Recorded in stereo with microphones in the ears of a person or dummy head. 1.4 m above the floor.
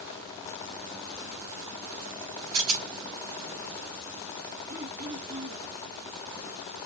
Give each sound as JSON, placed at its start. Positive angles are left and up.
{"t": 2.5, "sound": "a rattle", "side_deg": -85, "distance_m": 3.0}
{"t": 4.7, "sound": "throat clearing", "side_deg": -55, "distance_m": 2.5}